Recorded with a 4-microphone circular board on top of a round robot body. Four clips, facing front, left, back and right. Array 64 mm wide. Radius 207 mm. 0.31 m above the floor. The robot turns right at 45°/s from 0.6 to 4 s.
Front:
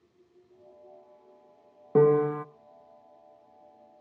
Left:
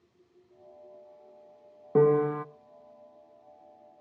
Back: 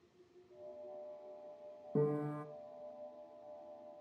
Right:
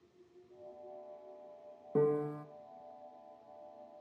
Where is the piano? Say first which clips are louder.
Left 9 dB, front 15 dB; 35° left, 0.6 m; by 2.5 s 60° left, 0.6 m.